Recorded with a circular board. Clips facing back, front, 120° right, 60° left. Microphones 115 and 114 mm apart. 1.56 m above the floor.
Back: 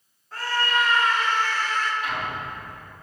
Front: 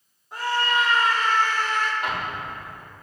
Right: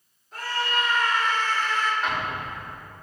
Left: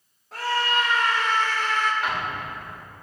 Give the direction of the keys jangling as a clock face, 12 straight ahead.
I don't hear keys jangling.